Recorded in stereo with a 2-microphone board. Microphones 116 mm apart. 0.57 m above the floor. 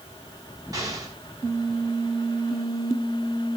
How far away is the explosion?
About 3 m.